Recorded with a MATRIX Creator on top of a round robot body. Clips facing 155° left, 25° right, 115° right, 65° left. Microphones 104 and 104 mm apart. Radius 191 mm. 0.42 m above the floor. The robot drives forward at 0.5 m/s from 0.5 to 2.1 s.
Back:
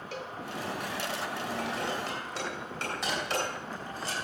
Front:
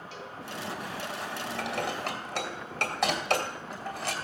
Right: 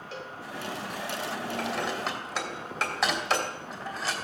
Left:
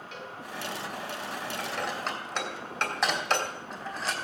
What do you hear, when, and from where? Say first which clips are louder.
0.1 s a cowbell: back 5 dB, right 3 dB; 165° right, 2 m
1.6 s dishes clattering: front 3 dB, right 2 dB; 25° right, 3 m